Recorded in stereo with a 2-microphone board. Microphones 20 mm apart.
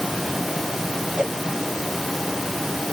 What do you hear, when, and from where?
1.2 s a whoosh: 70° right (ahead or behind)